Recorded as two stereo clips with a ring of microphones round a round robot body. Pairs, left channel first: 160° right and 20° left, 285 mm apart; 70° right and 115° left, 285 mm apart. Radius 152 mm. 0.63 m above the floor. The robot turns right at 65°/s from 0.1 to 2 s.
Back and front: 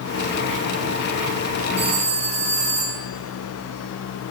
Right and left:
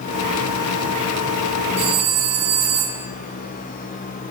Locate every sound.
1.8 s a phone ringing: 75° left, 3 m; by 3.1 s 90° left, 3 m